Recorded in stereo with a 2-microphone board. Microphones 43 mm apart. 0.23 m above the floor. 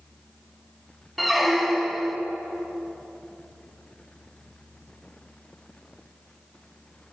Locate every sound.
1.2 s a squeak: centre (ahead or behind), 0.6 m